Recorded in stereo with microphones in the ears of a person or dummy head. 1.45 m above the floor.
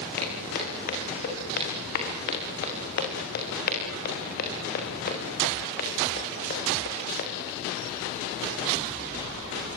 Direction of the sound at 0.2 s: 50° left (ahead or behind).